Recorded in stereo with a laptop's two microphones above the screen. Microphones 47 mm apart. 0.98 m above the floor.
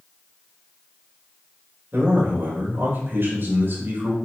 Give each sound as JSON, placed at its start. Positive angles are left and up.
{"t": 1.9, "sound": "a man speaking", "side_deg": -50, "distance_m": 4.0}